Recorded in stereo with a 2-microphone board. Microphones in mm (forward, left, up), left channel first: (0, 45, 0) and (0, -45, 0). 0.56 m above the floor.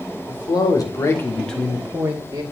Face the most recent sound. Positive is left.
turn(degrees=-35)  # may be behind; listen again after turning